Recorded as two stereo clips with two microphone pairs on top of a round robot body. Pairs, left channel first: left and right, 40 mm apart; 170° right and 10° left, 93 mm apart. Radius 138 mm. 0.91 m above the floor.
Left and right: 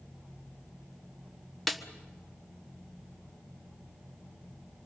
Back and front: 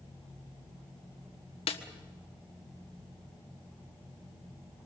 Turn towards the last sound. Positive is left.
turn(degrees=175)